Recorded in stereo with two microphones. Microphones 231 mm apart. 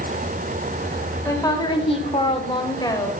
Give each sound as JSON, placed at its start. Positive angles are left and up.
{"t": 1.2, "sound": "a woman speaking", "side_deg": 15, "distance_m": 1.3}